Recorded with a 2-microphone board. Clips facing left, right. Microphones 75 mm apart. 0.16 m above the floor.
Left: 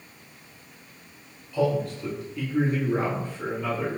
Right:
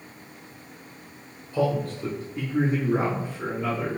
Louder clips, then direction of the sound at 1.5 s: Even; 45° right (ahead or behind).